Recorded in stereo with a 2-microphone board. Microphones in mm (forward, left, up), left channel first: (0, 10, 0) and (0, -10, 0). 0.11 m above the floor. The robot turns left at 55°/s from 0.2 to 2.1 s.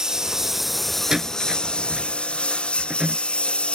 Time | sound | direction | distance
0.0 | a lawn mower | 150° right | ?
1.1 | a door slam | 30° right (ahead or behind) | ?